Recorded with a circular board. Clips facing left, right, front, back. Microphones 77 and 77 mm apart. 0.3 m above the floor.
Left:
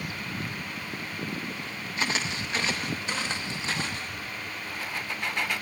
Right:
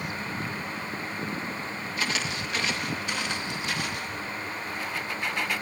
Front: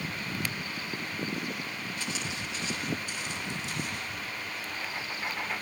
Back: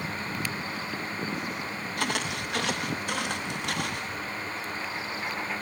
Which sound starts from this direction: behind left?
Footsteps, at 2.0 s.